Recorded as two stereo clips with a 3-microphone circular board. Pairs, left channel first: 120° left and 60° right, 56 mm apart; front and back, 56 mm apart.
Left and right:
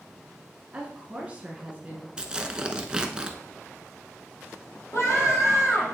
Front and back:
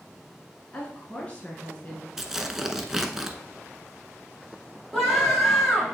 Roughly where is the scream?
Left.